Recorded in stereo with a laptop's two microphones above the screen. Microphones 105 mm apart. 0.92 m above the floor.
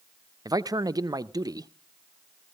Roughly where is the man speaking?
Right.